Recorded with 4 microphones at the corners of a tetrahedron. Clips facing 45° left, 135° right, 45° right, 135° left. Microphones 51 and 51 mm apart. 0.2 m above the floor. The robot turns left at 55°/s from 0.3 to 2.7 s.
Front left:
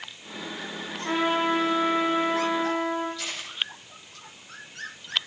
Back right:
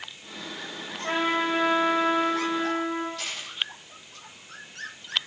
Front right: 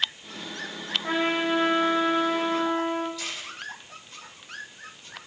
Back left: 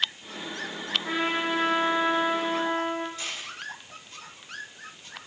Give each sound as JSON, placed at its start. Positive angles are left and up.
{"t": 1.0, "sound": "a trumpet", "azimuth_deg": -100, "distance_m": 6.5}
{"t": 3.2, "sound": "a camera shutter", "azimuth_deg": -170, "distance_m": 9.5}